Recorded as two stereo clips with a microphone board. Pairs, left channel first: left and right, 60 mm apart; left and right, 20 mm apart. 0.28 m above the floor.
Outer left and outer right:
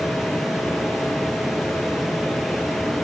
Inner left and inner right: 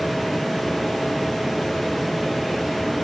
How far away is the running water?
About 3.5 m.